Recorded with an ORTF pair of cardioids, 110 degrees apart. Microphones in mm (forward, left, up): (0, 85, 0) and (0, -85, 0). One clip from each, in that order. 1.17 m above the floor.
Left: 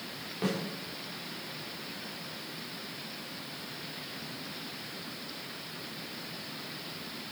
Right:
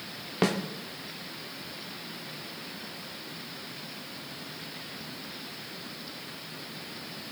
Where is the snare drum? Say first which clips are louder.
Right 6 dB; 65° right, 2 m.